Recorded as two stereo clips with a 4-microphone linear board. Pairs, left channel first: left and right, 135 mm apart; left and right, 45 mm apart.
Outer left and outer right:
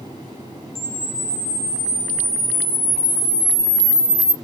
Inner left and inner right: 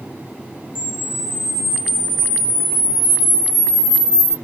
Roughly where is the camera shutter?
Left.